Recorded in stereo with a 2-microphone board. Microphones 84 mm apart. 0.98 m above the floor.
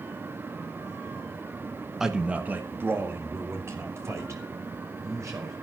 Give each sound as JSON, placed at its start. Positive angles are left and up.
{"t": 2.0, "sound": "a man speaking", "side_deg": -5, "distance_m": 1.1}